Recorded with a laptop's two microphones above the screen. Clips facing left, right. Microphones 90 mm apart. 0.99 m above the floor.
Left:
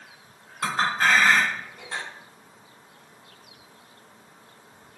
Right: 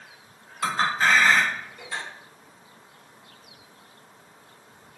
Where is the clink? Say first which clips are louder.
Even; 60° left (ahead or behind), 1.5 m.